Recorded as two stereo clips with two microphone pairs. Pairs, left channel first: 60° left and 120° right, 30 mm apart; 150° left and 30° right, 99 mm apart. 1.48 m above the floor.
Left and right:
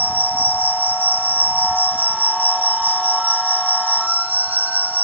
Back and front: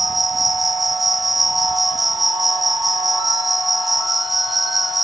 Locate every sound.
0.0 s an insect: 120° right